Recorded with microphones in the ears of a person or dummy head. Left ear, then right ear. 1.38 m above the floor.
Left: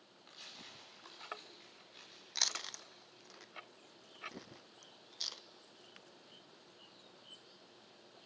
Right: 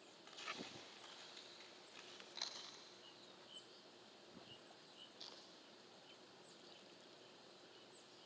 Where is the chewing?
55° left (ahead or behind), 0.5 m.